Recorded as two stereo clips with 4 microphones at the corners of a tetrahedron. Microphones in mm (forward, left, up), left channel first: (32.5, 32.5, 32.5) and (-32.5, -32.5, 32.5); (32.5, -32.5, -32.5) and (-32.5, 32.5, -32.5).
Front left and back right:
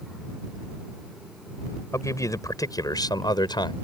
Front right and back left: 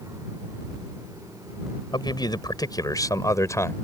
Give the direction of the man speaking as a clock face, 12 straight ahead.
12 o'clock.